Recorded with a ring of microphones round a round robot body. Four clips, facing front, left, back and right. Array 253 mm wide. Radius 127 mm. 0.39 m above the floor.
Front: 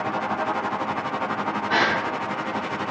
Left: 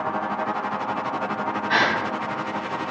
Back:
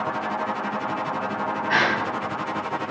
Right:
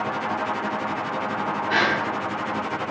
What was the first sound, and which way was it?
A gasp, 145° left.